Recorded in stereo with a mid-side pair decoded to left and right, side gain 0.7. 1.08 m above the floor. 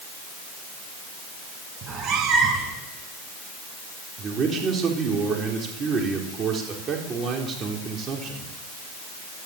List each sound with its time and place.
1.8 s a cat meowing: 45° right, 5 m
4.2 s a man speaking: 35° right, 3.5 m